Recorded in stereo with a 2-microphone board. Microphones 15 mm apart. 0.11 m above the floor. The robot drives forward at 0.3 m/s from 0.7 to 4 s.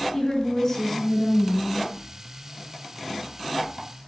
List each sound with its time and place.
0.1 s a woman speaking: 35° left (ahead or behind), 1.4 m; by 1.9 s 30° left (ahead or behind), 1.5 m